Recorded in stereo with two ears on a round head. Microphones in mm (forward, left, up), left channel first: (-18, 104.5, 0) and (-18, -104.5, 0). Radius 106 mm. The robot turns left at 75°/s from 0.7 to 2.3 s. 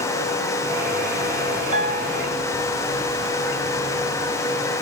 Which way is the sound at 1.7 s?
145° right.